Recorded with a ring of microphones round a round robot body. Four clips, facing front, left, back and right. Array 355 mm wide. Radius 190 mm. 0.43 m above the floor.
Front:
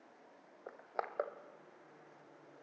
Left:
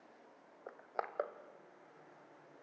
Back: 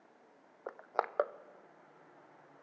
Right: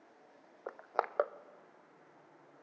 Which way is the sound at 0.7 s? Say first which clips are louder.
Right 6 dB, back 6 dB; 135° right.